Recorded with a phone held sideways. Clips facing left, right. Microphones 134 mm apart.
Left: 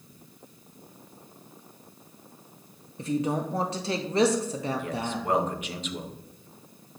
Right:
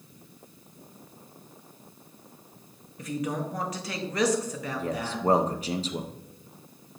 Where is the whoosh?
No whoosh in this recording.